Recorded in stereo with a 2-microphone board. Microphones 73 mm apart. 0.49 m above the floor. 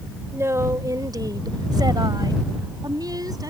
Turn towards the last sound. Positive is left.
turn(degrees=-55)  # may be behind; listen again after turning